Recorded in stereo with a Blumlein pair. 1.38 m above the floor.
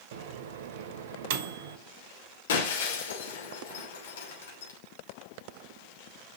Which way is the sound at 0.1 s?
55° right.